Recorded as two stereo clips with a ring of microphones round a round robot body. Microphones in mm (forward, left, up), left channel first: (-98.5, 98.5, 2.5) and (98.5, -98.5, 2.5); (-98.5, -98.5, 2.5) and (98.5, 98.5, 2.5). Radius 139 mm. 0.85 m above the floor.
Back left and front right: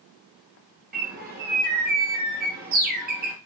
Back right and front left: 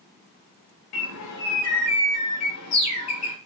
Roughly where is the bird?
Right.